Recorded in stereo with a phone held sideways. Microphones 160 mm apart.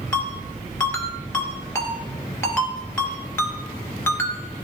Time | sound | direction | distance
0.1 | a ringtone | 20° left (ahead or behind) | 2 m